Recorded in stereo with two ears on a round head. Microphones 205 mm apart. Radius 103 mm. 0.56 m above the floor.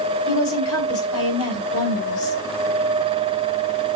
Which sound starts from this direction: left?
A woman speaking, at 0.3 s.